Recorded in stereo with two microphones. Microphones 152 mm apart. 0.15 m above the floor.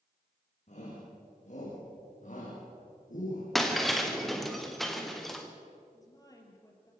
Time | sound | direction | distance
0.7 | a shout | 50° left (ahead or behind) | 7.5 m
3.5 | breaking glass | centre (ahead or behind) | 3 m
5.9 | a woman speaking | 25° left (ahead or behind) | 4 m